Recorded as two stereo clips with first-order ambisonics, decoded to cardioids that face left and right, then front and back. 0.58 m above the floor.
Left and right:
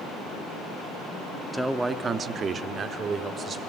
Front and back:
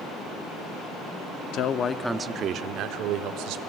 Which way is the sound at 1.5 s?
Straight ahead.